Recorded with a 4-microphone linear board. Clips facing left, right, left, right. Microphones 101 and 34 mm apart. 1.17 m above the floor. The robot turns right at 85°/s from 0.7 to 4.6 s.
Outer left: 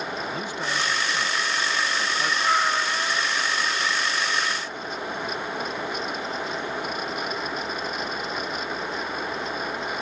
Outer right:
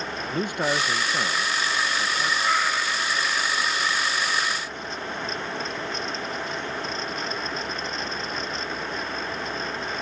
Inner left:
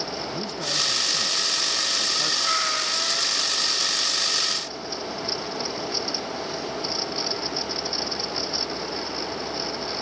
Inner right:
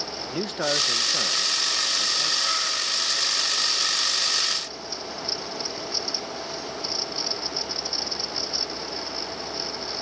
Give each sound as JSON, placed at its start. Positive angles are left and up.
{"t": 0.3, "sound": "a man speaking", "azimuth_deg": -115}
{"t": 2.4, "sound": "a cat meowing", "azimuth_deg": 15}